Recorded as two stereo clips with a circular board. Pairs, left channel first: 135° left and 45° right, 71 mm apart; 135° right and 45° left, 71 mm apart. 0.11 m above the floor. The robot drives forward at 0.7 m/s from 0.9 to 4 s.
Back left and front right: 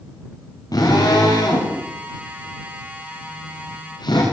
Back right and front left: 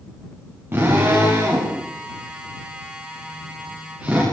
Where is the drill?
105° left, 10 m; by 4.2 s 115° left, 11 m.